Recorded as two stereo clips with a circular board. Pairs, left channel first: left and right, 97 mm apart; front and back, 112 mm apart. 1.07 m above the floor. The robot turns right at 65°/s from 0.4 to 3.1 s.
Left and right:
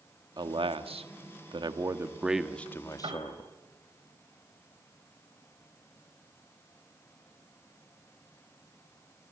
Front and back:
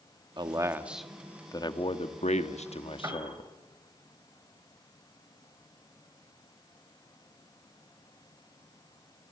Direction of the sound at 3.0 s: 120° right.